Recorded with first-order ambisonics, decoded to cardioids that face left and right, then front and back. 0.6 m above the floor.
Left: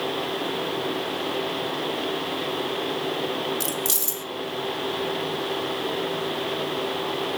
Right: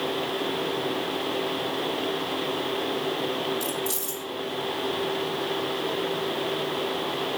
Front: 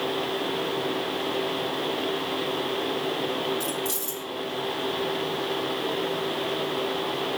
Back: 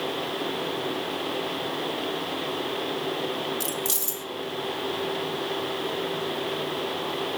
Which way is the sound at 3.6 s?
115° left.